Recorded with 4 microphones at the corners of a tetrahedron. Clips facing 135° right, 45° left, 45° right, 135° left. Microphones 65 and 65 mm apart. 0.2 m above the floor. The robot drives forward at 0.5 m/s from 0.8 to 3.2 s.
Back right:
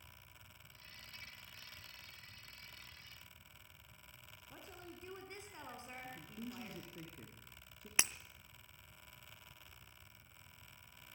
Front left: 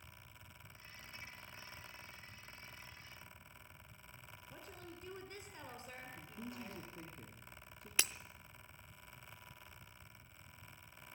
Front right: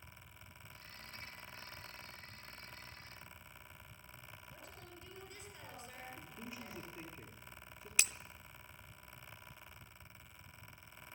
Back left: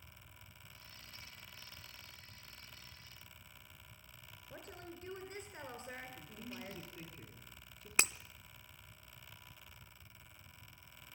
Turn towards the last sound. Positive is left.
turn(degrees=165)